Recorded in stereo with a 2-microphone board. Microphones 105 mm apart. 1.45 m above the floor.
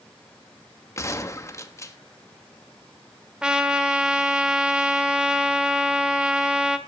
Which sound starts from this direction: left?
A gunshot, at 1.0 s.